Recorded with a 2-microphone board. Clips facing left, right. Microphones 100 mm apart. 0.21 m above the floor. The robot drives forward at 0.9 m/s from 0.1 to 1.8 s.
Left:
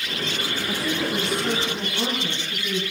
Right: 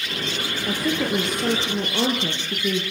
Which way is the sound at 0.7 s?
55° right (ahead or behind).